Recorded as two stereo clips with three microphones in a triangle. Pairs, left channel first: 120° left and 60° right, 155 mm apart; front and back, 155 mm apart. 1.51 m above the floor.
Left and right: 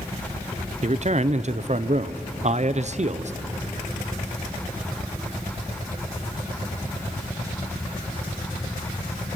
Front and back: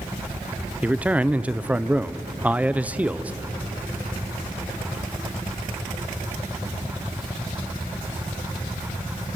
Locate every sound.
0.8 s a man speaking: 100° right, 0.6 m